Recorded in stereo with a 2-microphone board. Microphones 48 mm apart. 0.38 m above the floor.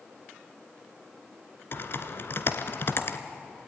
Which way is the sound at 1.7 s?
50° left (ahead or behind).